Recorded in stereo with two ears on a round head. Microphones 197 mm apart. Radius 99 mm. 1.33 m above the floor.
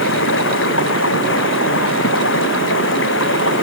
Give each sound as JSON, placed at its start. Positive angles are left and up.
{"t": 0.0, "sound": "running water", "side_deg": 65}